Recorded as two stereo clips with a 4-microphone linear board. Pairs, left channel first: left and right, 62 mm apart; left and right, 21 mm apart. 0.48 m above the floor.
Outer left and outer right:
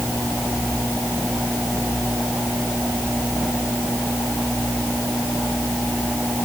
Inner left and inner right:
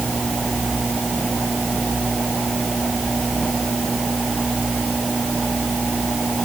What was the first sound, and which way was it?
Only background noise.